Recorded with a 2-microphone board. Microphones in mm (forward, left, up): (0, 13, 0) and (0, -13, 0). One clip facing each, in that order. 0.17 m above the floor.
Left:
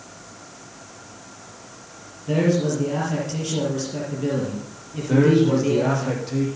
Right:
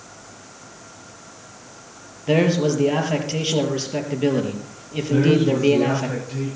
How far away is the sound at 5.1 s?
About 7.5 m.